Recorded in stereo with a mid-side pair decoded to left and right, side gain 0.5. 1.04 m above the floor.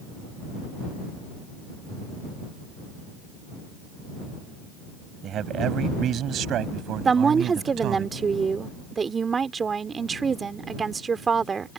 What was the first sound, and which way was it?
A man speaking, 60° right.